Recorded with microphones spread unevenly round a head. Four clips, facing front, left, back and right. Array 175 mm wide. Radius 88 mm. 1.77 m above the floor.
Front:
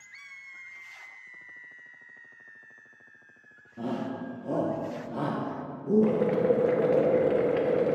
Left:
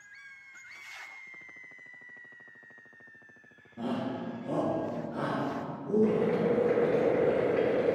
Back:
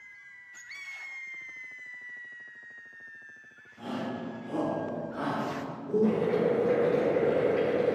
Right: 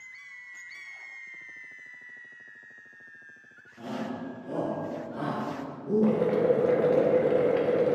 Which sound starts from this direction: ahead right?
Boiling, at 6.0 s.